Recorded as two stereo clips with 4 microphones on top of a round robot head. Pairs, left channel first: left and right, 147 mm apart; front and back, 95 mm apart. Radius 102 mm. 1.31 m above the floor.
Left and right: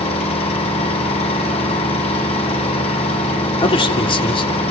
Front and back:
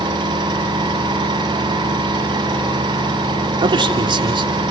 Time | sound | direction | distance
0.0 | an engine running | 140° left | 10 m
3.6 | a man speaking | 145° left | 3 m